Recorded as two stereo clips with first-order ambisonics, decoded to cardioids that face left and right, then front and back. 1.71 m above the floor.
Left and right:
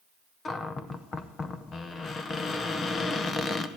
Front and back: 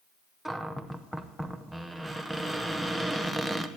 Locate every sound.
0.5 s a cupboard door: 95° left, 0.6 m